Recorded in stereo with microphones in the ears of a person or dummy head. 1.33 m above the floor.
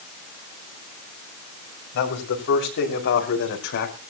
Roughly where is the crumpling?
I don't hear crumpling.